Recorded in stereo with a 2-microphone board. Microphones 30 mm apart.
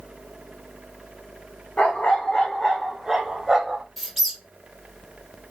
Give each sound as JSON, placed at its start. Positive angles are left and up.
{"t": 1.8, "sound": "a dog barking", "side_deg": 40, "distance_m": 1.0}
{"t": 4.0, "sound": "a squeak", "side_deg": 0, "distance_m": 0.9}